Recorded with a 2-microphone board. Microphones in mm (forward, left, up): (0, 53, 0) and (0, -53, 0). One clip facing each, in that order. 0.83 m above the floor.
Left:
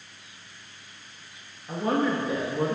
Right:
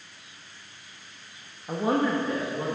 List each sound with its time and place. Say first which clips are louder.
1.7 s a woman speaking: right 1 dB; 25° right (ahead or behind), 1.1 m; by 2.8 s 25° left (ahead or behind), 1.4 m